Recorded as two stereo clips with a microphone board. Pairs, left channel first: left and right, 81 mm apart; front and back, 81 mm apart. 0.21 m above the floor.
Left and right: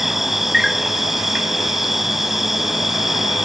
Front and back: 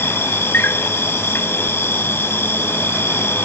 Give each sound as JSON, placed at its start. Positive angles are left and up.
{"t": 0.0, "sound": "an insect", "azimuth_deg": -5}